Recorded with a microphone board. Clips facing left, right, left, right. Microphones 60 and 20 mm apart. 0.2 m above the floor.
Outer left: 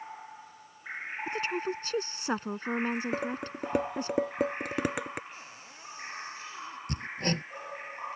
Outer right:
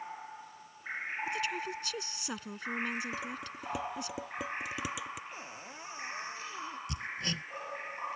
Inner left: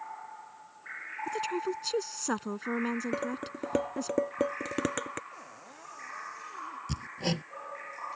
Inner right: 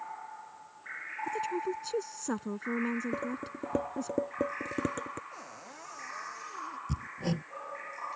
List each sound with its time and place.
1.3 s a woman speaking: 40° left (ahead or behind)
3.1 s dishes clattering: 50° left (ahead or behind)
5.3 s a cupboard door: 25° right (ahead or behind)
6.9 s hammering: 45° left (ahead or behind)